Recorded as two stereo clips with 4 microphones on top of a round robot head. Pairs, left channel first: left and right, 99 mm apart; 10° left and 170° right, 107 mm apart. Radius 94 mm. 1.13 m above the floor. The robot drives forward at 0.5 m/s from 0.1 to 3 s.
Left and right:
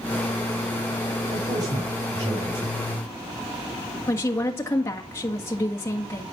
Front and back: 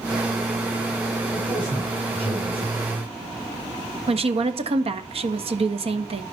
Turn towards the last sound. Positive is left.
turn(degrees=160)